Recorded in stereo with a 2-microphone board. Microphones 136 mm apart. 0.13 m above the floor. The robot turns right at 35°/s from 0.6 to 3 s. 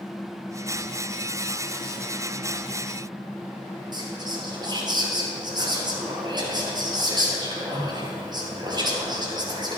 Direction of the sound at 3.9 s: 30° right (ahead or behind).